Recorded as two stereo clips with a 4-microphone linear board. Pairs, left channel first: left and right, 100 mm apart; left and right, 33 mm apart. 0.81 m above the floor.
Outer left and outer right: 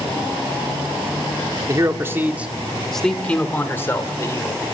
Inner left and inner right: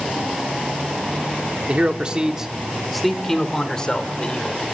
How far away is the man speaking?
About 1.8 m.